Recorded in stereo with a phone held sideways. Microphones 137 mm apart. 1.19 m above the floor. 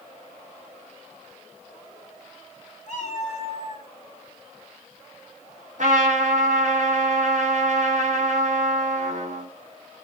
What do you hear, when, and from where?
2.9 s a cat meowing: 60° left (ahead or behind), 2.5 m; by 3.9 s 35° left (ahead or behind), 3 m
5.8 s a trumpet: 65° right (ahead or behind), 4 m